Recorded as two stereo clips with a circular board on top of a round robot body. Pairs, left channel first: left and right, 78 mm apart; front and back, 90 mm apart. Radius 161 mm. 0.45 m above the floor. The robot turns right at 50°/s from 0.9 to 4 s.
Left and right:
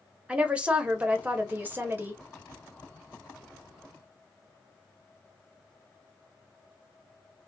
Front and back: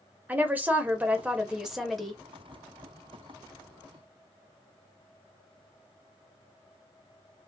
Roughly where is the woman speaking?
Behind right.